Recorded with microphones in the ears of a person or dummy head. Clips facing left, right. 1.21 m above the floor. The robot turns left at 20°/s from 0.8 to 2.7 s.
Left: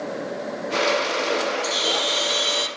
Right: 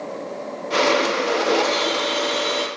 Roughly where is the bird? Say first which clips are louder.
Right 4 dB; left.